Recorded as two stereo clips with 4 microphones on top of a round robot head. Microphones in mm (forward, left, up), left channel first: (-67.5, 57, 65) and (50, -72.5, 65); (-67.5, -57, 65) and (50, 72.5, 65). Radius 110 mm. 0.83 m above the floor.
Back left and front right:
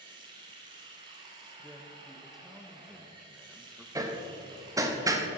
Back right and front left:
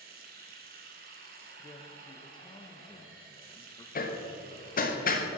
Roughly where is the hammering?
Behind right.